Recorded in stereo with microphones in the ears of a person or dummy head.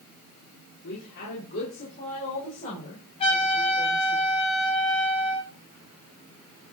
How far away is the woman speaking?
About 3.5 m.